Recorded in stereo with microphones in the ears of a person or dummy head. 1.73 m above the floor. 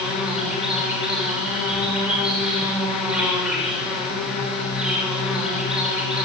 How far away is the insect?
About 8 m.